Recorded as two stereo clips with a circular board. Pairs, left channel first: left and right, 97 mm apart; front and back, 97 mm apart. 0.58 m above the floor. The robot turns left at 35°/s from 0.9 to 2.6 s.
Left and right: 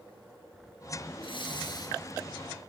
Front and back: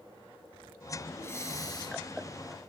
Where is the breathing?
65° left, 3.5 m; by 2.0 s 40° left, 3.5 m.